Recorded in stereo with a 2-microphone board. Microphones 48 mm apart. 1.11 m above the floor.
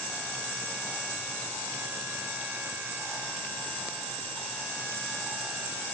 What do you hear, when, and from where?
Only background noise.